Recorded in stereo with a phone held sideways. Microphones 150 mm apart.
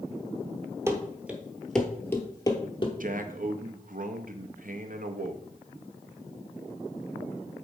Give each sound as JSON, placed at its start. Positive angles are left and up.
{"t": 0.9, "sound": "running footsteps", "side_deg": -20, "distance_m": 1.0}
{"t": 3.0, "sound": "a man speaking", "side_deg": -65, "distance_m": 0.7}